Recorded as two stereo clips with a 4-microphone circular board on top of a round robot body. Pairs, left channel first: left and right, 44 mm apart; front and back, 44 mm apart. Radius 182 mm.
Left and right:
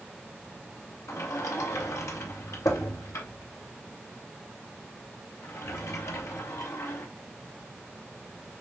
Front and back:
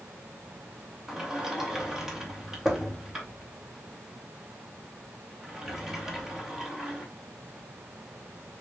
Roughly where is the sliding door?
Left.